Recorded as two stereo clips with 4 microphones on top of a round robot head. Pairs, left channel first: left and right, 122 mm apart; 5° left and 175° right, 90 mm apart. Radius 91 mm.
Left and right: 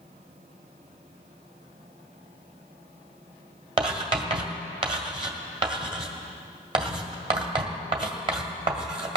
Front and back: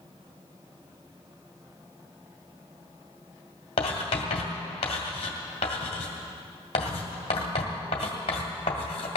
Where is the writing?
40° right, 2 m.